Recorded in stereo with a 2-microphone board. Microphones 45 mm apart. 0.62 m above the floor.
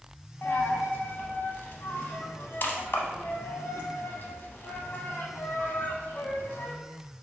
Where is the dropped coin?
50° left (ahead or behind), 0.6 m.